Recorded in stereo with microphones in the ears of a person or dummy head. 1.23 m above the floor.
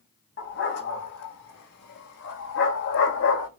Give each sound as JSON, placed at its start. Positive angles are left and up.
{"t": 0.4, "sound": "a dog barking", "side_deg": 50, "distance_m": 4.5}